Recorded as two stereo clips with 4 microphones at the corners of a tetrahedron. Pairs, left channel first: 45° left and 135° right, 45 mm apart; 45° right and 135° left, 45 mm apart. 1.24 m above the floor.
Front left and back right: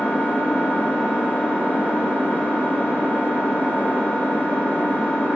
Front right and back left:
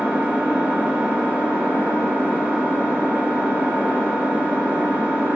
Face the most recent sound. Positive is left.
turn(degrees=80)